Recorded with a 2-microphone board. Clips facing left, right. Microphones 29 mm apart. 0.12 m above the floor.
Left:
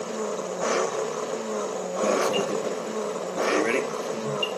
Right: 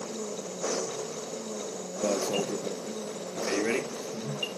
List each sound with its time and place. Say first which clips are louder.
0.0 s an engine running: left 7 dB; 70° left (ahead or behind)
2.0 s an alarm: left 4 dB; 25° left (ahead or behind)